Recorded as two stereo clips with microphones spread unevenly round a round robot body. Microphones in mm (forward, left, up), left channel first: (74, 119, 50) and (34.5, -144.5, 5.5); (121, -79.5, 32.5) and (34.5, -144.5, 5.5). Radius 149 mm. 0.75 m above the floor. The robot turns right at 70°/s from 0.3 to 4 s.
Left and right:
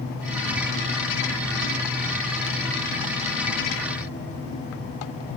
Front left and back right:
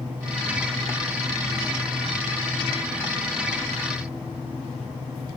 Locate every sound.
Only background noise.